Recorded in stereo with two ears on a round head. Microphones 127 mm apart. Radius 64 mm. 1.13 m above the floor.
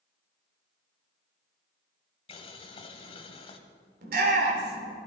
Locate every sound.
2.3 s boiling: 40° left (ahead or behind), 1.5 m
4.0 s a shout: 65° right (ahead or behind), 4 m